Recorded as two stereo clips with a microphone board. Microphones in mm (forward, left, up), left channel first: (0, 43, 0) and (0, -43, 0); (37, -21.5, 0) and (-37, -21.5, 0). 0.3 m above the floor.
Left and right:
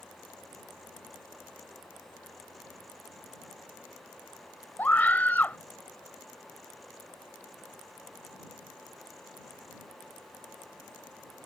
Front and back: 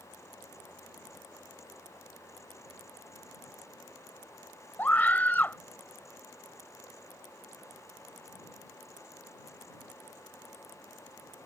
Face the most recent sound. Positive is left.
turn(degrees=40)